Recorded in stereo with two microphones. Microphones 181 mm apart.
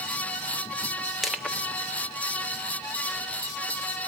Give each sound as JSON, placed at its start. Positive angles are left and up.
{"t": 1.2, "sound": "crushing", "side_deg": 0, "distance_m": 1.4}